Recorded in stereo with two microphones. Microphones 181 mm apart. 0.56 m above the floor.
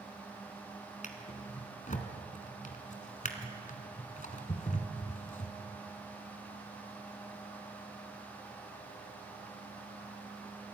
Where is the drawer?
50° left (ahead or behind), 2 m.